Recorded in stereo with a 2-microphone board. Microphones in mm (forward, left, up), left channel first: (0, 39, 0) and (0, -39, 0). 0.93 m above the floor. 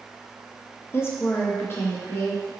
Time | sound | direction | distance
0.9 | a woman speaking | 35° left (ahead or behind) | 0.5 m